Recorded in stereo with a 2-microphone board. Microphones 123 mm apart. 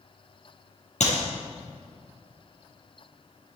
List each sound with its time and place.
1.0 s a clap: 70° left (ahead or behind), 4 m